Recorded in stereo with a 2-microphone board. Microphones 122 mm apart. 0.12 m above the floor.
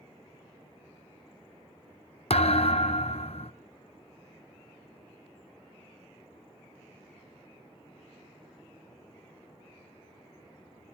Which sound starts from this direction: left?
A thud, at 2.3 s.